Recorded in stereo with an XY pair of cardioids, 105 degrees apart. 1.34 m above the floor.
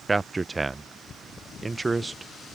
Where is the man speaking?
20° right.